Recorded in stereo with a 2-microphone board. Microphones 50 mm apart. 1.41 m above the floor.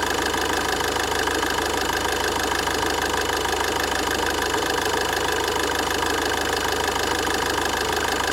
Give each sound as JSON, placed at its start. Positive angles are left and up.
{"t": 0.0, "sound": "an engine running", "side_deg": 0, "distance_m": 1.4}